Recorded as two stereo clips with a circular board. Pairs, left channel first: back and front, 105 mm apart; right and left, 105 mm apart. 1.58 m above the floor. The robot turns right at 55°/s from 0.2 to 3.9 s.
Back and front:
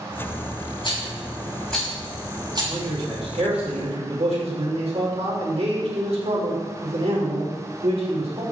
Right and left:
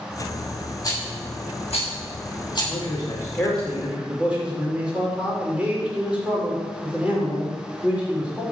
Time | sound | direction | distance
0.8 | a rattle | 145° right | 6 m
2.6 | a man speaking | 60° right | 5.5 m